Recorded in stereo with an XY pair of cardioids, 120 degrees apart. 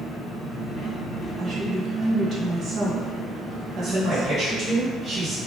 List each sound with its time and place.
0.0 s an engine running: 25° left, 1.0 m
1.4 s a woman speaking: 40° right, 1.1 m
3.8 s a man speaking: 45° right, 2.0 m